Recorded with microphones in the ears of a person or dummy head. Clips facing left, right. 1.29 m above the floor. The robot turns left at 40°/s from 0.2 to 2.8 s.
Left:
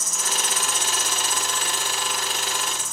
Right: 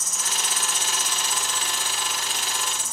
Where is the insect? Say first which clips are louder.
Left 3 dB; 70° left, 0.7 m; by 2.9 s 35° right, 0.7 m.